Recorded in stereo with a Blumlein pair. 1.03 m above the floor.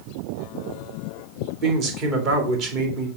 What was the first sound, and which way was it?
A man speaking, 35° right.